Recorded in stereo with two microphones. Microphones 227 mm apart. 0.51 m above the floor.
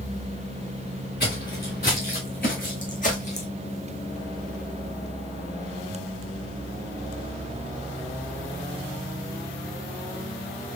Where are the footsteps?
50° left (ahead or behind), 2.5 m; by 3.5 s 30° left (ahead or behind), 1.3 m.